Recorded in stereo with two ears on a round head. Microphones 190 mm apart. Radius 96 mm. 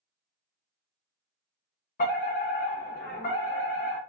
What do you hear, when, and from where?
2.0 s a fire alarm: 40° left (ahead or behind), 1.7 m